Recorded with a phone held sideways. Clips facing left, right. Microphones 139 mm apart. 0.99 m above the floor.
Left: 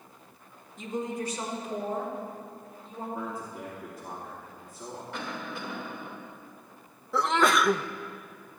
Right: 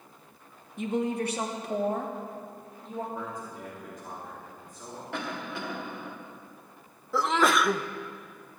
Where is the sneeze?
Centre (ahead or behind), 0.6 m.